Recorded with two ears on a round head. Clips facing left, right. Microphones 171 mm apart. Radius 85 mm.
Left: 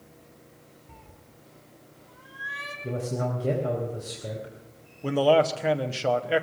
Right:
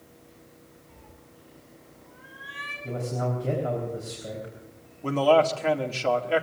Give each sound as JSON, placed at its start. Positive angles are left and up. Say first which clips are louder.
{"t": 0.9, "sound": "a cat meowing", "louder": "right 1 dB", "side_deg": 60, "distance_m": 1.2}
{"t": 2.8, "sound": "a man speaking", "louder": "even", "side_deg": 40, "distance_m": 4.0}
{"t": 5.0, "sound": "a man speaking", "louder": "even", "side_deg": 10, "distance_m": 1.0}